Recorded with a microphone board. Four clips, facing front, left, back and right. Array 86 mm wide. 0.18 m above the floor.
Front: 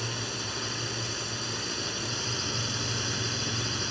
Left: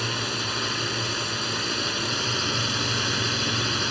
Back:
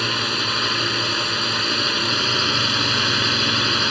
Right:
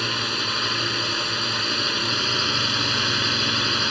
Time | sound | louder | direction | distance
0.0 | a drone | right 2 dB, back 11 dB | 165° right | ?